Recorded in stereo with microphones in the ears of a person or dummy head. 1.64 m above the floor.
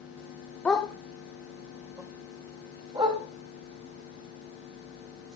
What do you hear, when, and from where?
0.7 s a dog barking: 5° left (ahead or behind), 2.0 m; by 3.2 s 30° right (ahead or behind), 5 m